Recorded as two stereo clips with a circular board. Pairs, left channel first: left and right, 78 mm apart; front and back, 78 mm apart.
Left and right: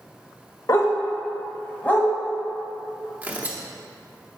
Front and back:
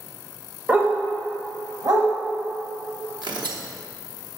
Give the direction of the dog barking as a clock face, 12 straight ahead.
8 o'clock.